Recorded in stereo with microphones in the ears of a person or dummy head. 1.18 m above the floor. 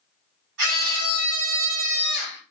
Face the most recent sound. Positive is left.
turn(degrees=-65)  # may be behind; listen again after turning